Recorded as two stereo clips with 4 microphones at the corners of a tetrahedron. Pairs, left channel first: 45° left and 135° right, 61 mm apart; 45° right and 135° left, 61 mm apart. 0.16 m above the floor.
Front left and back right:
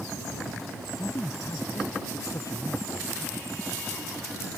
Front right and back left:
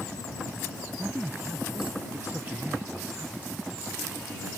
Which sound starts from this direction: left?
A man speaking, at 1.0 s.